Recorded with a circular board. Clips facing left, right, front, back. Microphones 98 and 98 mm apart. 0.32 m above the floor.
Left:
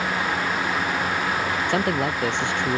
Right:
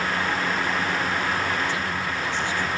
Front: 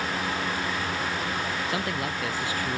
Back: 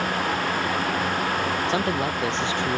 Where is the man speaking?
120° left; by 2.8 s 115° left.